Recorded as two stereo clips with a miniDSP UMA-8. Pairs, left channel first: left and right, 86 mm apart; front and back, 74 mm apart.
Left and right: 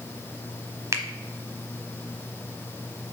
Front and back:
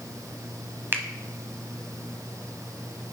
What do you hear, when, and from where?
0.9 s a finger snap: 130° right, 1.0 m